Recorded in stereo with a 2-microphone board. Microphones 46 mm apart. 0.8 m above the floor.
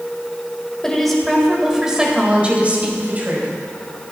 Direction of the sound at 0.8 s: 10° left (ahead or behind).